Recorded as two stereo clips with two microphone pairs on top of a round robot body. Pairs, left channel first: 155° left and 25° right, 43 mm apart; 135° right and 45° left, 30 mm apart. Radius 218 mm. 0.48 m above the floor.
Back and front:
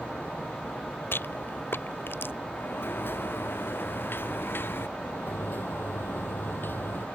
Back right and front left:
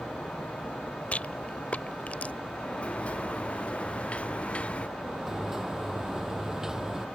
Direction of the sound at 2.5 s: Straight behind.